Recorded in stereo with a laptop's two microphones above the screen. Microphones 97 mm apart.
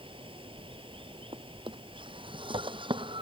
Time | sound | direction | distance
0.0 | running water | 65° right (ahead or behind) | ?
1.3 | a drawer | 60° right (ahead or behind) | ?